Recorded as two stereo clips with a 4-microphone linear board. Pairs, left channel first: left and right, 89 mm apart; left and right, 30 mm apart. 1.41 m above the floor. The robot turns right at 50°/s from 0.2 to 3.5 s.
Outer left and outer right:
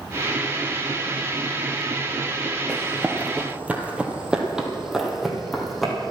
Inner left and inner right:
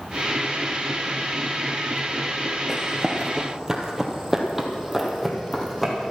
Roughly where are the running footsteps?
Centre.